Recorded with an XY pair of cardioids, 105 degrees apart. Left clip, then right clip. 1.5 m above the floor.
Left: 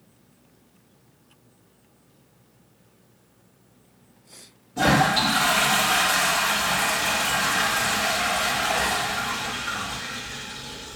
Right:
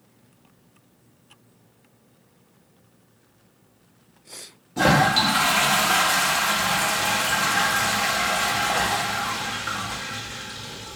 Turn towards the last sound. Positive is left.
turn(degrees=-45)